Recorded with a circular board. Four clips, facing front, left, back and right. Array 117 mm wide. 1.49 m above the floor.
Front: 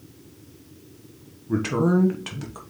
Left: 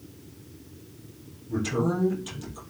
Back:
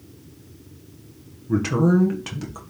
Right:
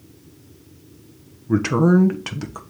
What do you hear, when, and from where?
1.5 s a man speaking: 90° right, 1.0 m